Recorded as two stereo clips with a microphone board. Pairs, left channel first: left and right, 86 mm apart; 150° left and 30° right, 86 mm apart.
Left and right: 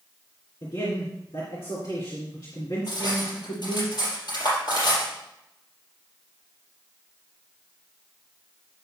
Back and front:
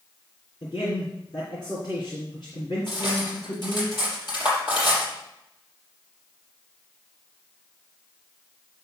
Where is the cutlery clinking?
115° left, 5 m.